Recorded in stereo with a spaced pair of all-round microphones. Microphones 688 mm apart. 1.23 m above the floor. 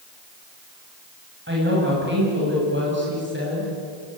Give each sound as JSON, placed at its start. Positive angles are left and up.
{"t": 1.5, "sound": "a woman speaking", "side_deg": -15, "distance_m": 7.5}